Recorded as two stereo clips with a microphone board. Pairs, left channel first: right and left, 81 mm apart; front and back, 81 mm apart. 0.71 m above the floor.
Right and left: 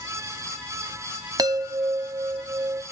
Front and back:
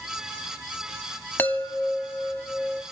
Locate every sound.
1.4 s a chime: 65° left, 0.8 m